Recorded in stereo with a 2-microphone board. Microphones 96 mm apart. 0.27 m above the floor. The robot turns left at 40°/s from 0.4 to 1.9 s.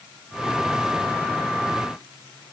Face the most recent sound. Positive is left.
No sound to turn to.